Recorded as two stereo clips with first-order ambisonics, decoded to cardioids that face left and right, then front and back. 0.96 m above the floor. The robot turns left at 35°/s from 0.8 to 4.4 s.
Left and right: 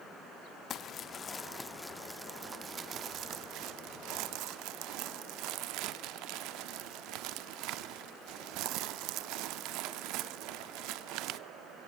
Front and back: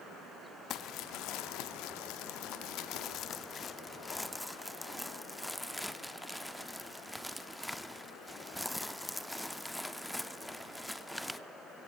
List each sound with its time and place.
0.7 s crumpling: 40° left, 0.6 m; by 11.4 s 90° right, 0.6 m